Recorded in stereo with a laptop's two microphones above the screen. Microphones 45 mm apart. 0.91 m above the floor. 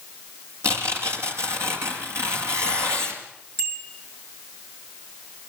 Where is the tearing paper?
80° right, 5 m.